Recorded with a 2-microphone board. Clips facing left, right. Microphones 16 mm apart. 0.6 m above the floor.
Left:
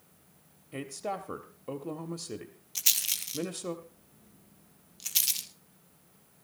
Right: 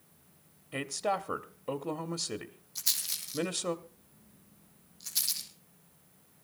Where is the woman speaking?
5° right (ahead or behind), 1.0 m.